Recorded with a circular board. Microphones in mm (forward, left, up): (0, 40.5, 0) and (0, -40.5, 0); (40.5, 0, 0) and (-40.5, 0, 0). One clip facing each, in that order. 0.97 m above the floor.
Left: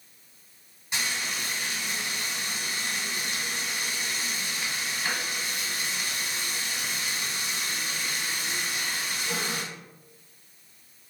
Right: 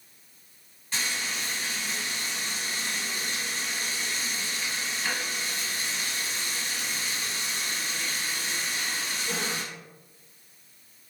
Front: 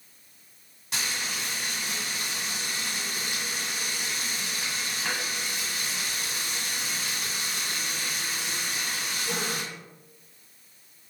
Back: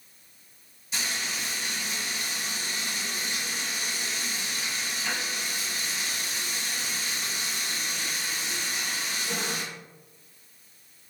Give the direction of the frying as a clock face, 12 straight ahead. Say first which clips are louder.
Left 1 dB, even; 12 o'clock.